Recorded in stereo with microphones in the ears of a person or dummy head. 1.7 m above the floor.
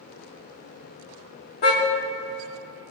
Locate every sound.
1.6 s a car horn: 45° left (ahead or behind), 2 m